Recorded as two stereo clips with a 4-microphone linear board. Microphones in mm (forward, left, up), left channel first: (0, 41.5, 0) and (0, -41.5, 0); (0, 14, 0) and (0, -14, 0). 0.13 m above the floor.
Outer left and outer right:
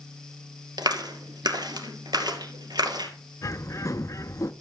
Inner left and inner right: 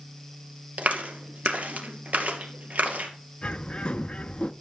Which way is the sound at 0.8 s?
60° right (ahead or behind).